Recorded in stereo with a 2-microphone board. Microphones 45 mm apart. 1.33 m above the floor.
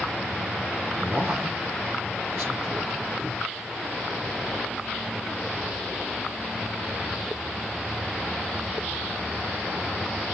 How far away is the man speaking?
About 1.4 m.